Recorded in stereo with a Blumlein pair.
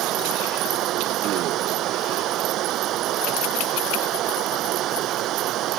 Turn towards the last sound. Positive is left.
turn(degrees=-35)